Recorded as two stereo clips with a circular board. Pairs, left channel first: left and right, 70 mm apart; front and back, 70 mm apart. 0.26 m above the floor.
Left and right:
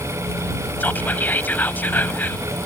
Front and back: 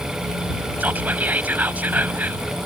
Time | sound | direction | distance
0.8 | whispering | 130° left | ?